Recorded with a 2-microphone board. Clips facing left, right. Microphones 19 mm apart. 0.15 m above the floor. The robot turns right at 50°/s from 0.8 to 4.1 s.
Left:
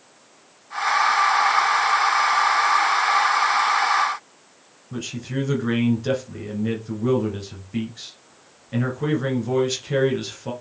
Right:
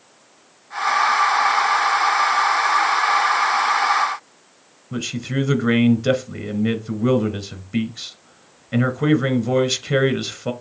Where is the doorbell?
No doorbell in this recording.